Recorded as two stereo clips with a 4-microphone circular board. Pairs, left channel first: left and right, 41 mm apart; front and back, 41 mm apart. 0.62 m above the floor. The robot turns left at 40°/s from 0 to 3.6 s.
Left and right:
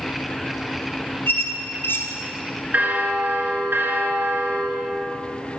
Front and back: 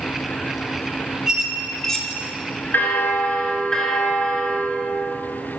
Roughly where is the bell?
Ahead right.